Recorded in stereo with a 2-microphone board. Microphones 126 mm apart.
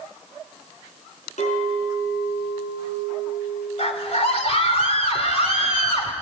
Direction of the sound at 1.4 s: 70° left (ahead or behind).